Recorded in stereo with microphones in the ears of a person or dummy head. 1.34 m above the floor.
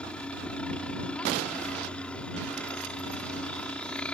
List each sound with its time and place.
0.0 s a helicopter: 5° left (ahead or behind)